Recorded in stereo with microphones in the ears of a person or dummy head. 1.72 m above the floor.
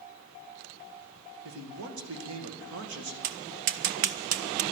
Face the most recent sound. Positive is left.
turn(degrees=-50)  # may be behind; listen again after turning